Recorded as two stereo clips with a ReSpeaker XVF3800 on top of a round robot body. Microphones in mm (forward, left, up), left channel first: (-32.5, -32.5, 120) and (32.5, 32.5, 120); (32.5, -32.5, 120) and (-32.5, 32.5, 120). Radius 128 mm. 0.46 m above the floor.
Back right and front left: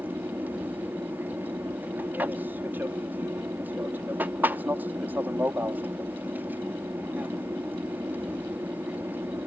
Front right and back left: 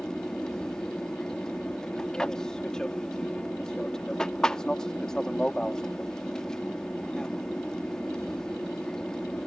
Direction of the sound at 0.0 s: 25° left.